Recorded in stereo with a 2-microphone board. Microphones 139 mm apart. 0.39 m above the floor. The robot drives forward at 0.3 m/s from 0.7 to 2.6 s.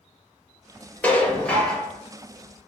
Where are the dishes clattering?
10° left (ahead or behind), 0.7 m.